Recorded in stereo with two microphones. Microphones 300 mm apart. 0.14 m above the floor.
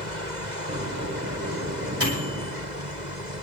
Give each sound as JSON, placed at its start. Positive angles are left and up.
{"t": 0.7, "sound": "a microwave", "side_deg": -50, "distance_m": 6.5}